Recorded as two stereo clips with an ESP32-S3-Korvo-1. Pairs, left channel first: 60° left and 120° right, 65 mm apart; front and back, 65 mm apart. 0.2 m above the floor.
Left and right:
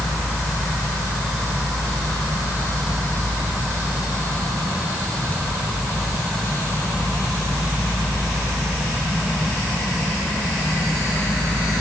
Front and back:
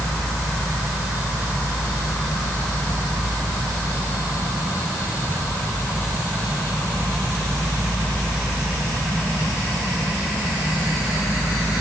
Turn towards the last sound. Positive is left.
No sound to turn to.